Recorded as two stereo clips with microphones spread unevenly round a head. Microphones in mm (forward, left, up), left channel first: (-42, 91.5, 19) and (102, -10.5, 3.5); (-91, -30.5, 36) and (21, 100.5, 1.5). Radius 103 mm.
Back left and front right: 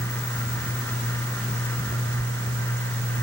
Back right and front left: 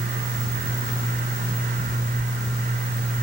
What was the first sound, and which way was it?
Only background noise.